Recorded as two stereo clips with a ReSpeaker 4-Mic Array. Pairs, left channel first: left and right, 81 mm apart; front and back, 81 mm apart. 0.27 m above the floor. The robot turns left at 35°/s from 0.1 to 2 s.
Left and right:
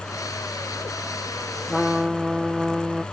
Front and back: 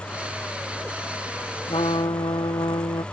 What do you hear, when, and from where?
1.7 s a trumpet: 5° left; by 3.0 s 5° right